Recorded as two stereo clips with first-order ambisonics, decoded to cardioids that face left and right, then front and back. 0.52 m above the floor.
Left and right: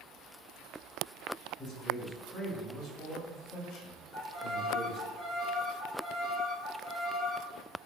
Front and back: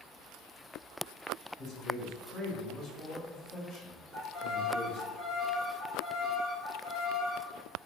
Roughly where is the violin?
Left.